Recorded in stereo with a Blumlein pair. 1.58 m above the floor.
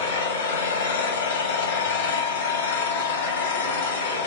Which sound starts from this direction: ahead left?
An engine running, at 0.0 s.